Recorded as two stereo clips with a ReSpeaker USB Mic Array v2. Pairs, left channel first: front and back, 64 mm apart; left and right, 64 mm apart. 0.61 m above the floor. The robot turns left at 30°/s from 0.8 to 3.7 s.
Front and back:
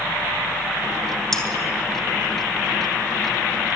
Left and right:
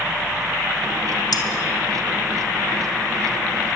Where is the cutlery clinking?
85° left, 3 m; by 1.4 s 80° left, 3 m.